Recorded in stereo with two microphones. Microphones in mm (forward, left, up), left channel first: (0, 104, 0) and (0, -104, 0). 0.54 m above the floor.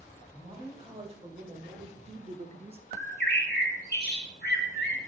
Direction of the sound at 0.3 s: 25° right (ahead or behind).